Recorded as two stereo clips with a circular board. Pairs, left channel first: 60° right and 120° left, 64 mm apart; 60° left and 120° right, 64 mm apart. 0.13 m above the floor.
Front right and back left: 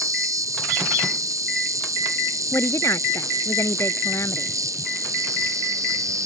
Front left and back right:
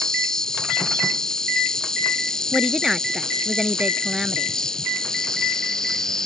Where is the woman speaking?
40° right.